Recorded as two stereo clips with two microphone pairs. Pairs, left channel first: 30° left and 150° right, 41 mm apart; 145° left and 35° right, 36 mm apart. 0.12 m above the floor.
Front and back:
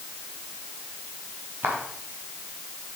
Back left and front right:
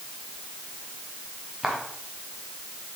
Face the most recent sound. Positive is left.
turn(degrees=-115)